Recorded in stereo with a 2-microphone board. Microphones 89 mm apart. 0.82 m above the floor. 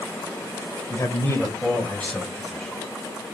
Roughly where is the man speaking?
Left.